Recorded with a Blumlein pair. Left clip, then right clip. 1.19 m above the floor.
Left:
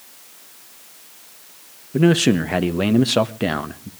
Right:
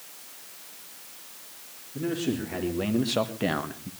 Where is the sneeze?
No sneeze in this recording.